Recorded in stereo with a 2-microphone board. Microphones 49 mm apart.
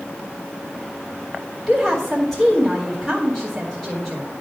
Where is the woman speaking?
10° left (ahead or behind), 1.4 m.